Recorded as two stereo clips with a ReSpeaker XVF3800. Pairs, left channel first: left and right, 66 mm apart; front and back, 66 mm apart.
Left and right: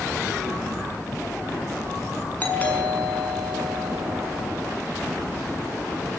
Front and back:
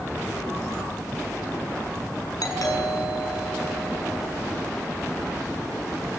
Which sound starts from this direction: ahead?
A doorbell, at 2.4 s.